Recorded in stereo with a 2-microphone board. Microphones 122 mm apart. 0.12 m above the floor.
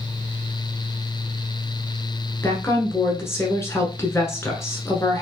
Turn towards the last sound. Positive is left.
turn(degrees=20)  # may be behind; listen again after turning